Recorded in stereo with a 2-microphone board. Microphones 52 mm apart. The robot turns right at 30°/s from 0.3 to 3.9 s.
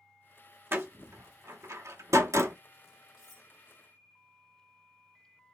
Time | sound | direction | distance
0.7 | a door slam | 50° right (ahead or behind) | 0.7 m
3.2 | cutlery clinking | 10° right (ahead or behind) | 2.5 m